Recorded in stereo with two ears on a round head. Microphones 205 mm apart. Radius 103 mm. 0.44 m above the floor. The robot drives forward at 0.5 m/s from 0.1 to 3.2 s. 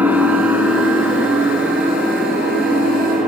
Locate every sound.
0.0 s an engine running: 10° right (ahead or behind), 1.3 m; by 3.3 s 5° right (ahead or behind), 3 m